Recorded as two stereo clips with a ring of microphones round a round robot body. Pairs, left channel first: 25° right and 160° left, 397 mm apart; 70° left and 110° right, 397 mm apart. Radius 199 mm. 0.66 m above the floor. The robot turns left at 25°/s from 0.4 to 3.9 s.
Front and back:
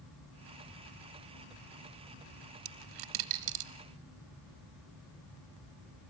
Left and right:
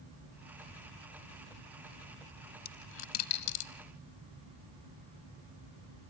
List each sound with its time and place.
2.6 s a dropped coin: 135° left, 0.8 m; by 3.7 s 110° left, 0.8 m